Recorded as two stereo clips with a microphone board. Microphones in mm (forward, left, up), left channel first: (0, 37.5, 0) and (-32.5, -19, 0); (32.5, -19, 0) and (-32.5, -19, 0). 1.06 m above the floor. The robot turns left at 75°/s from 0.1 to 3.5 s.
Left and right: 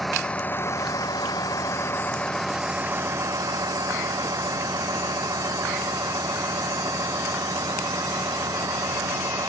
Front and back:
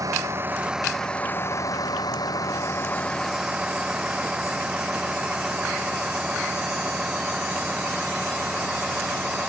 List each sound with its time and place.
0.0 s a vehicle: 150° left; by 9.5 s 105° right